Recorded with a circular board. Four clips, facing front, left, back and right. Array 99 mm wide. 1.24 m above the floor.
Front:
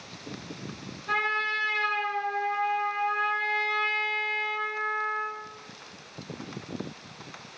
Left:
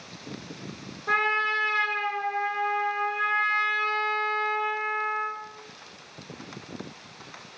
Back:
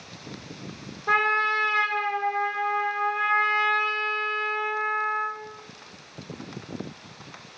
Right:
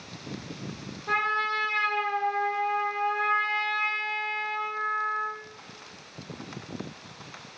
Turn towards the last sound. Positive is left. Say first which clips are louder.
# left 2 dB, back 6 dB
turn(degrees=165)